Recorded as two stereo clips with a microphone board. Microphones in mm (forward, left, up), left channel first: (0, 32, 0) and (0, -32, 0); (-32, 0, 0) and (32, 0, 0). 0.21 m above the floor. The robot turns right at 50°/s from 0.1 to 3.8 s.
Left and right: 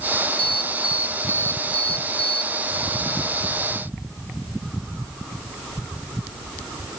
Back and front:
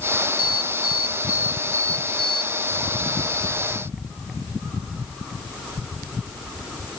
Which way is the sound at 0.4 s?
170° left.